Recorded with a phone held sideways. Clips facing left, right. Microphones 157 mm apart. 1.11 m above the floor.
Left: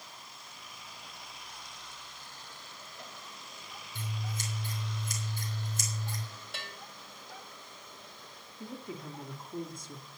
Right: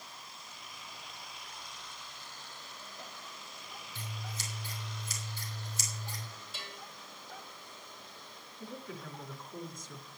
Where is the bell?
65° left (ahead or behind), 2.5 m.